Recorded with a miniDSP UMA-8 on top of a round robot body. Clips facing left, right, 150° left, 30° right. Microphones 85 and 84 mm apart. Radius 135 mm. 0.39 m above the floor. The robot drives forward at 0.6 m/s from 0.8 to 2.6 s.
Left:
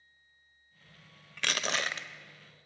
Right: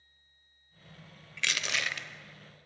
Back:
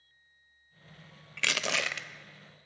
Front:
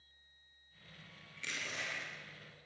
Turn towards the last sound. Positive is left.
turn(degrees=155)